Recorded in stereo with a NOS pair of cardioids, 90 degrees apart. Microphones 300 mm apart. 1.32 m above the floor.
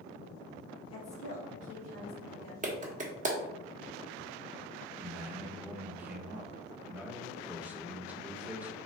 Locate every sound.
0.9 s a woman speaking: 65° left, 1.1 m; by 2.5 s 80° left, 1.9 m
2.6 s a clap: 25° right, 1.0 m
5.0 s a man speaking: 5° right, 1.0 m